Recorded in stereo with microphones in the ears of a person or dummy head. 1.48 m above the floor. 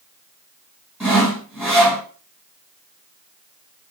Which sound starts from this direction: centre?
Sawing, at 1.0 s.